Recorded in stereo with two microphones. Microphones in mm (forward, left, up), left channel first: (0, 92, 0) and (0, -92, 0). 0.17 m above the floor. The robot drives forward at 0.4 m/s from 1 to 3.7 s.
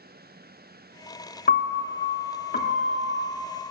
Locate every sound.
1.5 s a piano: 60° left (ahead or behind), 0.6 m; by 3.5 s 35° left (ahead or behind), 0.9 m